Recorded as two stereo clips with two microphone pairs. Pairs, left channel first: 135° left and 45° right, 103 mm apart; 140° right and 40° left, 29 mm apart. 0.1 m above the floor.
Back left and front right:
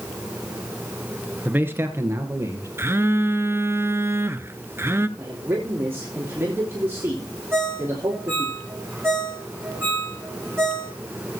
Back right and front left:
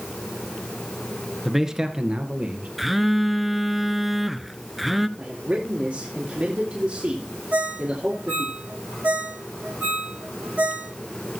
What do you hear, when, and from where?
1.4 s a man speaking: 40° right, 1.2 m; by 2.7 s 15° left, 2.5 m
2.8 s a phone buzzing: 40° right, 0.6 m
5.2 s a man speaking: 20° left, 3 m
7.5 s a ringtone: 25° left, 3.5 m